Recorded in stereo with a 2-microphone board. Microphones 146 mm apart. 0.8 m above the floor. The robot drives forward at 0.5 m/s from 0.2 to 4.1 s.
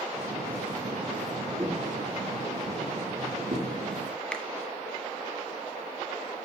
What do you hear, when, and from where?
1.6 s footsteps: 20° right (ahead or behind), 6 m; by 3.7 s 65° right (ahead or behind), 4.5 m
4.3 s a finger snap: 5° left (ahead or behind), 0.8 m